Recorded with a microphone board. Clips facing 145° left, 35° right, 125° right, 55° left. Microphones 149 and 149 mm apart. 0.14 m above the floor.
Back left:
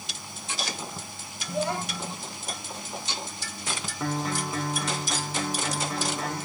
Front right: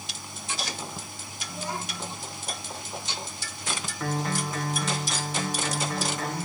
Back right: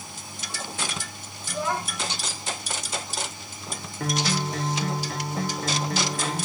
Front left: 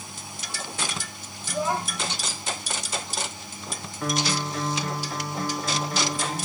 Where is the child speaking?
140° left, 2.5 m.